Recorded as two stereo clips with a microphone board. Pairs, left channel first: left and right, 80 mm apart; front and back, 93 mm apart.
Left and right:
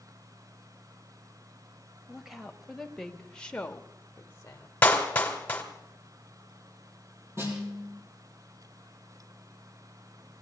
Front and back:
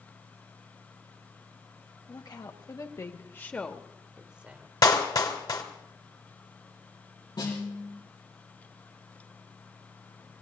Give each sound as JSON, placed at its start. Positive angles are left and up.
{"t": 2.1, "sound": "a woman speaking", "azimuth_deg": -10, "distance_m": 1.9}
{"t": 4.8, "sound": "a clap", "azimuth_deg": 25, "distance_m": 2.0}
{"t": 7.4, "sound": "a snare drum", "azimuth_deg": -40, "distance_m": 7.0}